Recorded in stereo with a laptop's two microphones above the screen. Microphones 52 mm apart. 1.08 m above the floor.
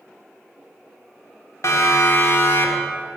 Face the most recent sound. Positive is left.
turn(degrees=35)  # may be behind; listen again after turning